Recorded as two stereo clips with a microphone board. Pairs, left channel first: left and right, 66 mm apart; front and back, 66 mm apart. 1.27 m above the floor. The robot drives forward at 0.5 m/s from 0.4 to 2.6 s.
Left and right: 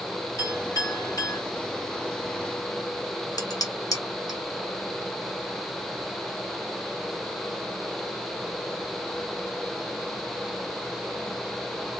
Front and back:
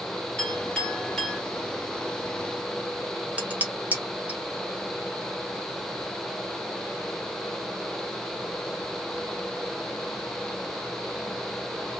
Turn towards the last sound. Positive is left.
turn(degrees=115)